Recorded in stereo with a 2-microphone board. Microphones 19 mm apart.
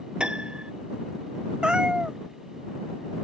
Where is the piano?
70° right (ahead or behind).